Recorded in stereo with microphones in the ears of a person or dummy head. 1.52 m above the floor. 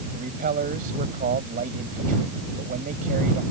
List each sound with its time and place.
0.1 s a man speaking: 50° right (ahead or behind)